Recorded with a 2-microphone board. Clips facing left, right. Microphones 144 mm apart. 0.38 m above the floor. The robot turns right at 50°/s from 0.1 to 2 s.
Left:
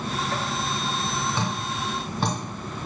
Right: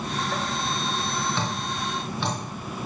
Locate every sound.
1.4 s dripping: 10° left (ahead or behind), 4 m; by 2.4 s 45° left (ahead or behind), 4 m